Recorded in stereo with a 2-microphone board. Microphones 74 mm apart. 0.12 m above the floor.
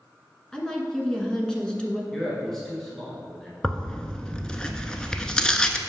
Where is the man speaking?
5° left (ahead or behind), 1.2 m.